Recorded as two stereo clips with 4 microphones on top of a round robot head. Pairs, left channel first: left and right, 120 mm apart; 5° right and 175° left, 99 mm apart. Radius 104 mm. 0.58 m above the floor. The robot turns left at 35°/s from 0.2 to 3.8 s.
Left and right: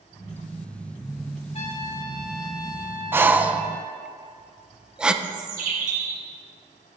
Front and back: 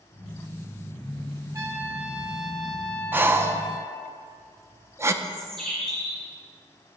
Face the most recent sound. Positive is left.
turn(degrees=-90)